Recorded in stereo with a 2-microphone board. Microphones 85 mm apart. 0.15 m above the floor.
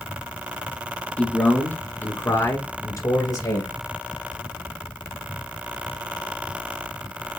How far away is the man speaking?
About 1.4 m.